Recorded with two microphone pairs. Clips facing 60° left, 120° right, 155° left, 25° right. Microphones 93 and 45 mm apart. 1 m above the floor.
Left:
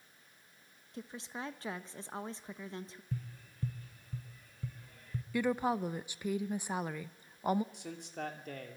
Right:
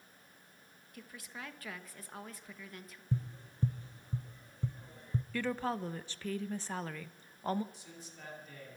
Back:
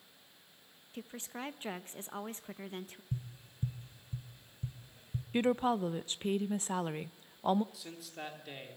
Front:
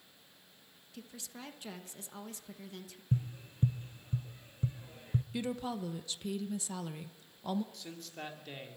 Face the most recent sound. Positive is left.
turn(degrees=70)